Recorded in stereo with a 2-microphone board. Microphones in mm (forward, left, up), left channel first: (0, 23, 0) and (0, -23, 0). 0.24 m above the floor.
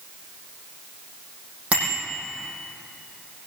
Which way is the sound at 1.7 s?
25° right (ahead or behind).